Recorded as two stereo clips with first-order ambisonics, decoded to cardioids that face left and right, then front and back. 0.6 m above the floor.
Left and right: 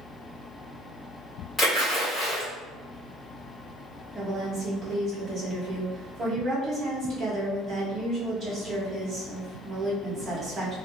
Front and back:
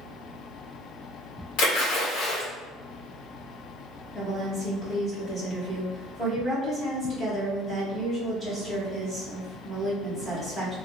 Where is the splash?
15° left, 1.6 m.